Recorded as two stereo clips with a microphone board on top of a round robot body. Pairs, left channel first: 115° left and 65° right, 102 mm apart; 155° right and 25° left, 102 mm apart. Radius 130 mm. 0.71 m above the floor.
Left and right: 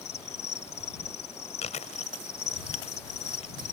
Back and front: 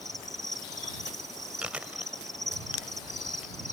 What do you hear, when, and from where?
0.0 s an insect: 115° left
1.6 s chewing: 105° left